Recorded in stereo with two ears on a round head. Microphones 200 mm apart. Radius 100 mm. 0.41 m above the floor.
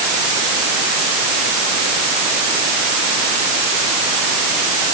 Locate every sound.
Only background noise.